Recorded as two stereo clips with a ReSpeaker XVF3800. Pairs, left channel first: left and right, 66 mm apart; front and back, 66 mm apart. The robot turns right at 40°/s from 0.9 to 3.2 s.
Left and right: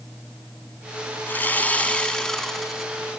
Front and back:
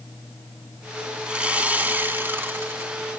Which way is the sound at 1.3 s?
120° left.